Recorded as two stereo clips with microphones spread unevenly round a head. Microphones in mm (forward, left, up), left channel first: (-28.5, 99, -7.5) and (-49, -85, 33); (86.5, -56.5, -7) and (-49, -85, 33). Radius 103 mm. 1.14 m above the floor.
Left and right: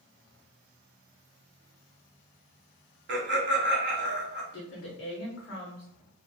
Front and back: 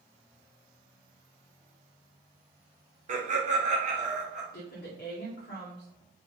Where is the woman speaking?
45° left, 0.5 m.